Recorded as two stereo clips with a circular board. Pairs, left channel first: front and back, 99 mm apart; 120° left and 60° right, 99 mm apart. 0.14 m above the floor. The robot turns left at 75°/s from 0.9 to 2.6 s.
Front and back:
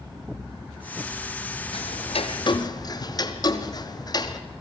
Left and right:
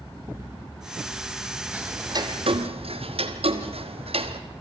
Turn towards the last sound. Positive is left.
turn(degrees=-50)